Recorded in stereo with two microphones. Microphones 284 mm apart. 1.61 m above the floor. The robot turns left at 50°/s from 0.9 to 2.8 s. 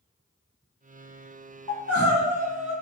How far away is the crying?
About 0.8 m.